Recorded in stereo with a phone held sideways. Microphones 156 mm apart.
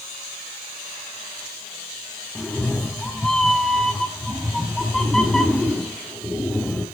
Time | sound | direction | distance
2.4 | a cat meowing | 5° left (ahead or behind) | 1.0 m